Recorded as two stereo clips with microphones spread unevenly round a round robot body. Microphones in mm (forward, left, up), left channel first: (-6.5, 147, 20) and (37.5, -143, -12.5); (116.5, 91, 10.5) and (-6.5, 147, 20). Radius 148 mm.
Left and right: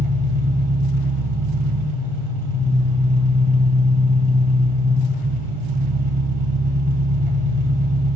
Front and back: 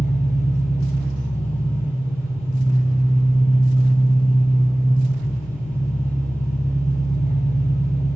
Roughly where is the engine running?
Right.